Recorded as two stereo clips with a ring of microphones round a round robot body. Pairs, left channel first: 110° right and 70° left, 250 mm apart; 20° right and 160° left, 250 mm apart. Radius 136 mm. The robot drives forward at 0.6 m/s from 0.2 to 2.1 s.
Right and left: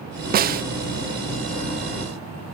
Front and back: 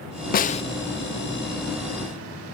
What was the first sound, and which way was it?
A snare drum, 20° left.